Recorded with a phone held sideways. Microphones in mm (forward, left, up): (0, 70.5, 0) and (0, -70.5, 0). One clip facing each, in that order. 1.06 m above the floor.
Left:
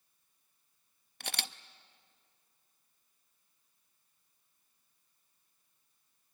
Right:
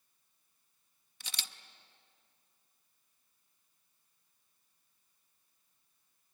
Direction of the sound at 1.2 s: 65° left (ahead or behind).